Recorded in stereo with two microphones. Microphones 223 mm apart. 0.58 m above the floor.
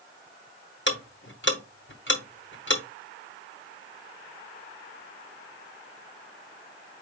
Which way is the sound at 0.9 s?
55° left (ahead or behind).